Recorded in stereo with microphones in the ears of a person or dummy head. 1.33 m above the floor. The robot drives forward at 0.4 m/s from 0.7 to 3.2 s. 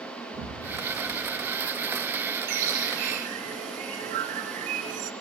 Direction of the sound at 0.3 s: 65° right (ahead or behind).